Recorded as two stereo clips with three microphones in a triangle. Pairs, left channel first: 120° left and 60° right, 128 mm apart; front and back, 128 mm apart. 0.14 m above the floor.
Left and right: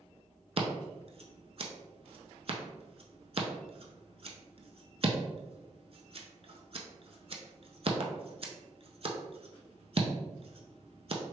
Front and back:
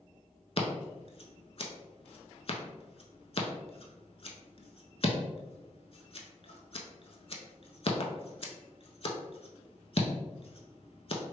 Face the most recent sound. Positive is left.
turn(degrees=-30)